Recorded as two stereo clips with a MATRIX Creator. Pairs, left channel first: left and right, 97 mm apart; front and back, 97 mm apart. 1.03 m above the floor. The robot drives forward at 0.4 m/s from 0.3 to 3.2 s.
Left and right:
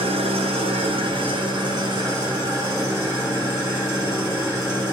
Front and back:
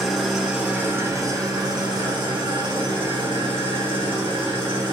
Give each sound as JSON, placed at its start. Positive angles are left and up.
{"t": 0.0, "sound": "an engine running", "azimuth_deg": -95, "distance_m": 0.7}